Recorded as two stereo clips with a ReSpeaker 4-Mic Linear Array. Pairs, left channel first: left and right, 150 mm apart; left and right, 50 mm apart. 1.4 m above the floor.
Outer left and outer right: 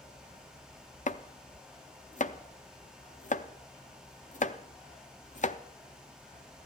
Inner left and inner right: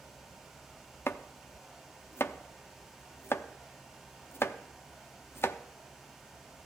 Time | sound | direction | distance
1.1 | chopping | 55° left (ahead or behind) | 0.6 m